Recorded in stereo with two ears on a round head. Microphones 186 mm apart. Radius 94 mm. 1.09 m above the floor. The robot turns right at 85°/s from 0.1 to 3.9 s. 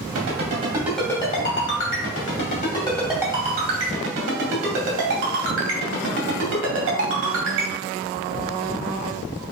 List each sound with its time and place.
0.1 s a ringtone: 65° right (ahead or behind), 2 m; by 7.7 s 70° right (ahead or behind), 2 m